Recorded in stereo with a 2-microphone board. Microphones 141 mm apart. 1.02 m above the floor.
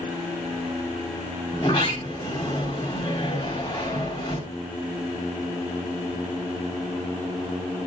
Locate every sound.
1.5 s a sliding door: 40° left (ahead or behind), 4 m